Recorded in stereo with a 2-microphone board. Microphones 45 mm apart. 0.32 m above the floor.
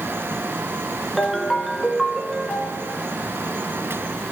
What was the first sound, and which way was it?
A ringtone, 5° left (ahead or behind).